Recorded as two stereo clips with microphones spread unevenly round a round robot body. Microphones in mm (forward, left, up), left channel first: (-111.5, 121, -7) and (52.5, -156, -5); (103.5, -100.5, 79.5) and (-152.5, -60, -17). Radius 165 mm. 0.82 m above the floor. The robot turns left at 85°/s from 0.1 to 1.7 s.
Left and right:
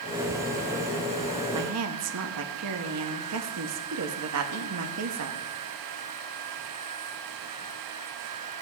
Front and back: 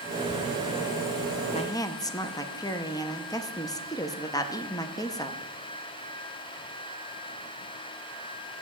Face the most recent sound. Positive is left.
turn(degrees=-95)